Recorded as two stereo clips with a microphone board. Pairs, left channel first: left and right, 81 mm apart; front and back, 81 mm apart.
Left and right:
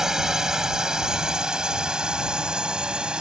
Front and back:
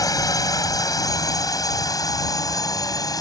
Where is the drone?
10° right; by 3.2 s 15° right.